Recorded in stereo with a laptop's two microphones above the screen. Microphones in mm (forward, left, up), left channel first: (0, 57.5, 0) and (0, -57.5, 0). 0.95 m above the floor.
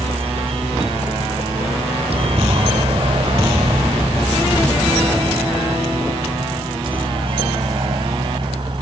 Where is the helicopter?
60° right (ahead or behind); by 8.8 s 45° right (ahead or behind).